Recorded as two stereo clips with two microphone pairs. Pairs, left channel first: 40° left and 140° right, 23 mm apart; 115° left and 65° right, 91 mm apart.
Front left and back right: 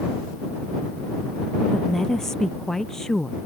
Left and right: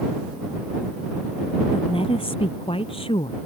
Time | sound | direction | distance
1.7 | a woman speaking | 110° left | ?